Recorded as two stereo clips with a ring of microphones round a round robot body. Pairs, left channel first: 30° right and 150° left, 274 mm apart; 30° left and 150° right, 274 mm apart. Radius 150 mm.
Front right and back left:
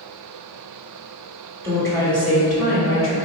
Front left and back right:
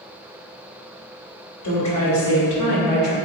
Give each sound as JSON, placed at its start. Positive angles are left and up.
{"t": 1.6, "sound": "a woman speaking", "azimuth_deg": 55, "distance_m": 1.8}